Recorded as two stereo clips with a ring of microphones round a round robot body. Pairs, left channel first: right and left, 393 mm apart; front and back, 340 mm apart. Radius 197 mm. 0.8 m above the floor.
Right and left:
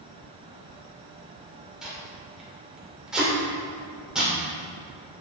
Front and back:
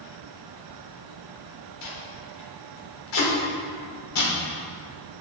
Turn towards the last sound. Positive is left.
turn(degrees=0)